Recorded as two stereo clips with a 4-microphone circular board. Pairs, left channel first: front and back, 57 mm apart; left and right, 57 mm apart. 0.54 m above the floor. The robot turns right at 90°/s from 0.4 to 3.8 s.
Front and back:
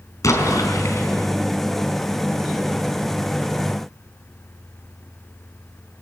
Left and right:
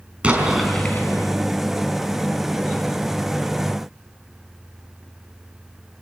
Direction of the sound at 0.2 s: 20° right.